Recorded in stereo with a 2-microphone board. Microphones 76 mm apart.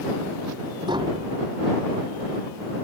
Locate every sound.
0.9 s tapping: 85° right